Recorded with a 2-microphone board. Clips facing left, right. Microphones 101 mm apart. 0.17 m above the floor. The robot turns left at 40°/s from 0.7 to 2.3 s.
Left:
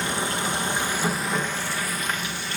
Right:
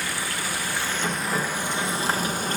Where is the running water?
25° left, 1.6 m; by 2.6 s 40° right, 1.6 m.